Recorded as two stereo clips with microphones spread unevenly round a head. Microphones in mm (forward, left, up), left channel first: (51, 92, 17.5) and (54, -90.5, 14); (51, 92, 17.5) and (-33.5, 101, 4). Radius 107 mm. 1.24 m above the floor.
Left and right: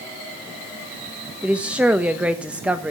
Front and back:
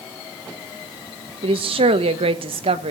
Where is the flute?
I don't hear a flute.